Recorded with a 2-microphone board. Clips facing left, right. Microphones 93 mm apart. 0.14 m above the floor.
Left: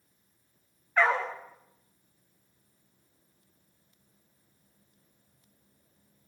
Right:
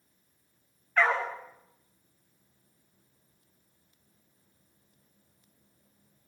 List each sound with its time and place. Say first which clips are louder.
1.0 s a dog barking: left 1 dB; 15° left (ahead or behind), 6 m